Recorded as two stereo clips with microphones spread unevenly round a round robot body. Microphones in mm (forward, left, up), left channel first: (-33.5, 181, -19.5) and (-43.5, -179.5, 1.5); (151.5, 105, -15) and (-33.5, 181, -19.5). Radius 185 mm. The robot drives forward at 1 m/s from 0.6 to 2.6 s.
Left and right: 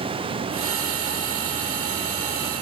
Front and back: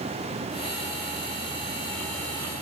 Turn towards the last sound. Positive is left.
No sound to turn to.